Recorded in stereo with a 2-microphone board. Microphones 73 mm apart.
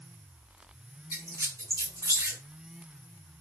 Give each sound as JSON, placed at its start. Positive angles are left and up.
{"t": 1.1, "sound": "a squeak", "side_deg": -40, "distance_m": 1.1}